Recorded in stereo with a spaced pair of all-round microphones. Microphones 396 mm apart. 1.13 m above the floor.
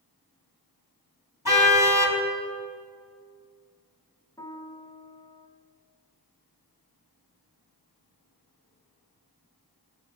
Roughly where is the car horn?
Left.